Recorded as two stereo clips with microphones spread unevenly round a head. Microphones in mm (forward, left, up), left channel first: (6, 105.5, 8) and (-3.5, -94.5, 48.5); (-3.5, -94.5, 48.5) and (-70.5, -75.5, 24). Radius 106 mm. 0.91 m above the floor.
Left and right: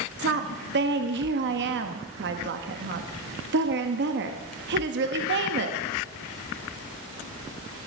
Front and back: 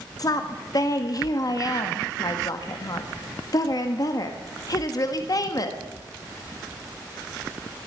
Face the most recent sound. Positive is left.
turn(degrees=-55)